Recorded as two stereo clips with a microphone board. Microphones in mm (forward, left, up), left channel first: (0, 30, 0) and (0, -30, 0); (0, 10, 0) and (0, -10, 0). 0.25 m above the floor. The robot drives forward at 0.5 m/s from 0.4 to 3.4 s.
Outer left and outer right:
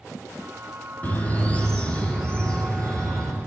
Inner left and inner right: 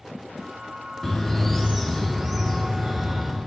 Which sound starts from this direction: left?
A bird, at 1.0 s.